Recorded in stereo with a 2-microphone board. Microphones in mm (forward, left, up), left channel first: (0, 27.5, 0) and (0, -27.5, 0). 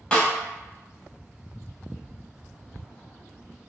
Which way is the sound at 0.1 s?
20° left (ahead or behind).